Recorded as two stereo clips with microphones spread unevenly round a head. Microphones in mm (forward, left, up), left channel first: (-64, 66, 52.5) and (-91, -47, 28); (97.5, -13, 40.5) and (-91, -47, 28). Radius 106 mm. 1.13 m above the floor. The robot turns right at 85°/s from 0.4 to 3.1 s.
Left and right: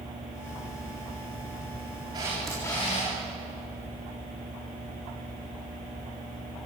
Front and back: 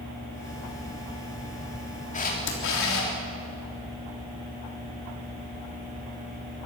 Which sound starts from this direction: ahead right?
A camera shutter, at 2.1 s.